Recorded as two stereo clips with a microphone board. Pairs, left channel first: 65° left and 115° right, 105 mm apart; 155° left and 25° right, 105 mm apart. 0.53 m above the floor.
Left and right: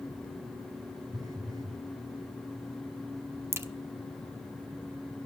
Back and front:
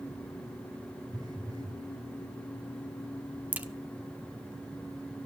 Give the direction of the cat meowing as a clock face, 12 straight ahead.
No cat meowing in this recording.